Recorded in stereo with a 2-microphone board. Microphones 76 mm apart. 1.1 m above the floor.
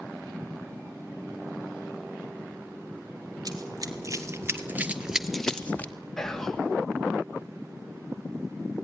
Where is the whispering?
5° left (ahead or behind), 1.2 m.